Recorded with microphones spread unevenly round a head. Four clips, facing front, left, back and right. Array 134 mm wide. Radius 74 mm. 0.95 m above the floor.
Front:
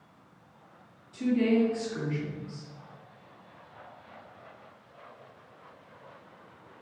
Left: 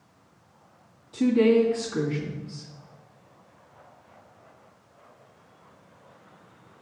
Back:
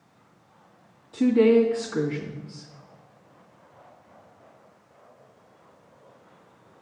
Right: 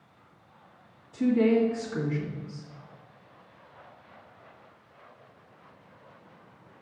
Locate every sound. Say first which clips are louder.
1.1 s a woman speaking: left 3 dB, back 7 dB; 170° left, 1.5 m